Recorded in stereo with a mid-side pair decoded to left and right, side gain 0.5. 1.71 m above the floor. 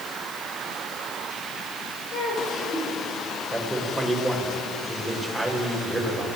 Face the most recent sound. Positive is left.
turn(degrees=0)